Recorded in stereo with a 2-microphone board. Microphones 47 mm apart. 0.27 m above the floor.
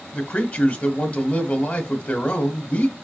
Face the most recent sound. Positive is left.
turn(degrees=35)  # may be behind; listen again after turning